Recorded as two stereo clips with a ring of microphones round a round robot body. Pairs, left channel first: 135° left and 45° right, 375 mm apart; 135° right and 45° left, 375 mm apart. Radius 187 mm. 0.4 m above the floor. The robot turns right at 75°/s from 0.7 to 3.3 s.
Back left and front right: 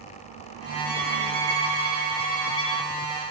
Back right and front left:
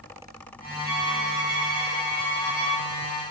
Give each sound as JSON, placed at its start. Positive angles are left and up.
{"t": 0.8, "sound": "a violin", "azimuth_deg": -70, "distance_m": 1.4}